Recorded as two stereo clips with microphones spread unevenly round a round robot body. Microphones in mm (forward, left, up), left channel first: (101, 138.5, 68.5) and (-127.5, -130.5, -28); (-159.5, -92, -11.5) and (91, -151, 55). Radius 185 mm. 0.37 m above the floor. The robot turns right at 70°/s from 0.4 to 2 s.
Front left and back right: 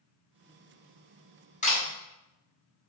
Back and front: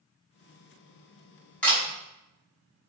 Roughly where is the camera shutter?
Behind left.